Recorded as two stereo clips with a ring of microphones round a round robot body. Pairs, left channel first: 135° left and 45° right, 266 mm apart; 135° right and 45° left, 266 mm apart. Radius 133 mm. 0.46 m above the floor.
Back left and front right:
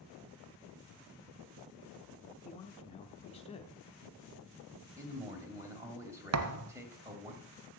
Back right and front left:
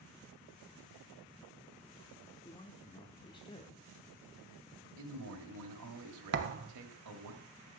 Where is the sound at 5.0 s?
35° left, 1.9 m.